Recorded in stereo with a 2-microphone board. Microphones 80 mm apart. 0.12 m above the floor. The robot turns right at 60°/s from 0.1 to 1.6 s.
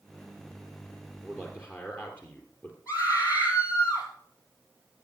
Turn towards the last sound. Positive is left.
turn(degrees=50)  # may be behind; listen again after turning